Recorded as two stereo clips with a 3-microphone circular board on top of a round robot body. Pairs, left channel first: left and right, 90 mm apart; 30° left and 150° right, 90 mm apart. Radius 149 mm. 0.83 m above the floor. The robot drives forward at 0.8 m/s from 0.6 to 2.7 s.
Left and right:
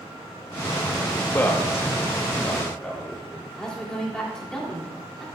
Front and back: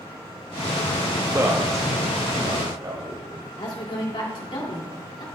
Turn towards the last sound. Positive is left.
turn(degrees=10)